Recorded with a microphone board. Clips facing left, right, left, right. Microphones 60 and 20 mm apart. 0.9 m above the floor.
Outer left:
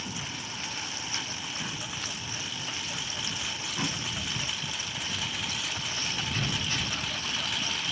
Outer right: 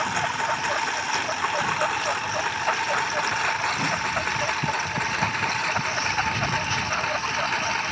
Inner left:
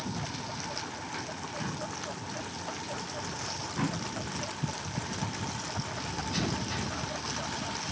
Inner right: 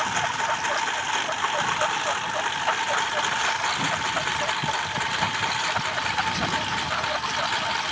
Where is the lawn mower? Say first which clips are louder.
Outer right 14 dB, inner right 12 dB; 65° right (ahead or behind); by 7.9 s 45° right (ahead or behind).